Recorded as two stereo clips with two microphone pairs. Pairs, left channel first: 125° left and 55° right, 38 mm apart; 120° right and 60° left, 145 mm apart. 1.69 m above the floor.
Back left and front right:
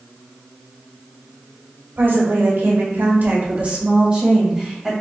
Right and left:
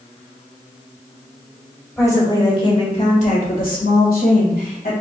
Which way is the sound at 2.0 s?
50° right.